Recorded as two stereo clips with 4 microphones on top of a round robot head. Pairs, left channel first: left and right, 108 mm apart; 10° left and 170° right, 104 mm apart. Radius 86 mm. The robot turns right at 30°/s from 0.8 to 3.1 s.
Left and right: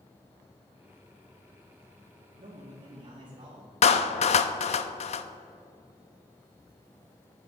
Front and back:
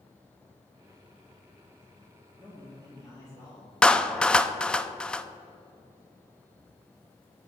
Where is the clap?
90° left, 0.6 m.